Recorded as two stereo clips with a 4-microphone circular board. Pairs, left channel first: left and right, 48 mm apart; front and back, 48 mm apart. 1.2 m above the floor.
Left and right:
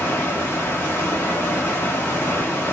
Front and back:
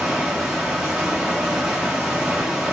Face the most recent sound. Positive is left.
turn(degrees=100)